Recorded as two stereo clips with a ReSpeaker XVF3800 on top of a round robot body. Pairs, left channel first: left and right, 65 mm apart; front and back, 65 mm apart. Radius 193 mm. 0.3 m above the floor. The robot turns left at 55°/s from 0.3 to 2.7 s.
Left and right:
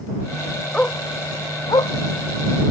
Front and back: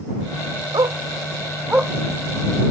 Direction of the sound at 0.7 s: 165° left.